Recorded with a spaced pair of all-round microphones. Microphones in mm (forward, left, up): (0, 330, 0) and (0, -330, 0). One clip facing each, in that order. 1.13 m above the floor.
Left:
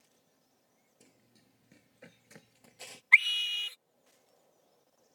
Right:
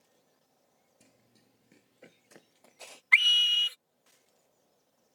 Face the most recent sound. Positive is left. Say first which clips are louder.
# right 1 dB
turn(degrees=-45)  # may be behind; listen again after turning